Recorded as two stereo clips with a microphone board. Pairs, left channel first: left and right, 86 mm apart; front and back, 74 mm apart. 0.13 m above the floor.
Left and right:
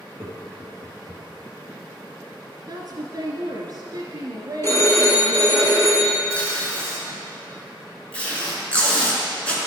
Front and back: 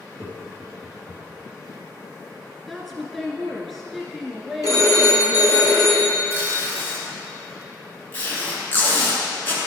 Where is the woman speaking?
85° right, 1.7 m.